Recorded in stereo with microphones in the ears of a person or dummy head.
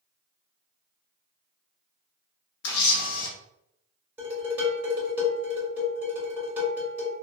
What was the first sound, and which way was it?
A camera shutter, 65° left (ahead or behind).